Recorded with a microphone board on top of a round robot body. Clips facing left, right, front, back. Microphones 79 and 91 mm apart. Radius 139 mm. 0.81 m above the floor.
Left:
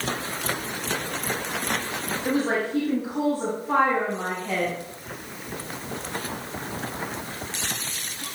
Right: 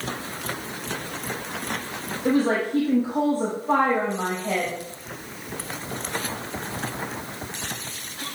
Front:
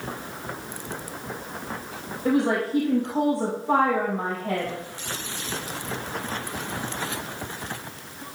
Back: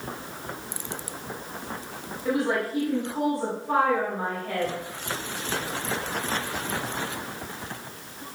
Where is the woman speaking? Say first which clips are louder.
Right 4 dB, front 3 dB; 50° right, 4.5 m.